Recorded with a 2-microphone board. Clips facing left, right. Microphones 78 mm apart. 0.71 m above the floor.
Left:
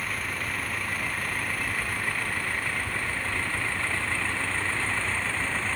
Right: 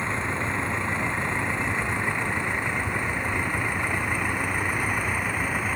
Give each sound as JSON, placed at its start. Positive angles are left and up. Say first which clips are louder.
{"t": 0.0, "sound": "a vehicle", "louder": "right 5 dB", "side_deg": -25}